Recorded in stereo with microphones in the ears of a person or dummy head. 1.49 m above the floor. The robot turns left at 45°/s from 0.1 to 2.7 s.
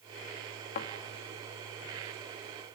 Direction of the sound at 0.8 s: 40° left (ahead or behind).